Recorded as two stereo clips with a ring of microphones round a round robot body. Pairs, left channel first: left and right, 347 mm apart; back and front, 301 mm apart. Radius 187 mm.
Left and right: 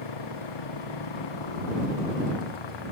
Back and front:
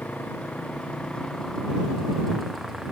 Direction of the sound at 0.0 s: 95° left.